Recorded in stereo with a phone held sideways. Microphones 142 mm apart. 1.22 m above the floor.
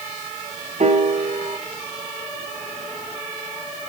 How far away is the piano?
About 0.9 m.